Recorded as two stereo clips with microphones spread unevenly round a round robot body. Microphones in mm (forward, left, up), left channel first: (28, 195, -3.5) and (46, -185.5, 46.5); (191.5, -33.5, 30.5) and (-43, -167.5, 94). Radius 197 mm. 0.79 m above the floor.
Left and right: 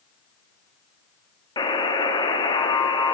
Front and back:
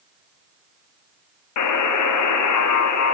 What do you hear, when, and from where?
1.6 s a buzzer: 15° left, 0.8 m